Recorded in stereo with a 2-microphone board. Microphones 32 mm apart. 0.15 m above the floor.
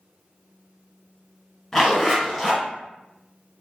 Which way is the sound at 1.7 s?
15° left (ahead or behind).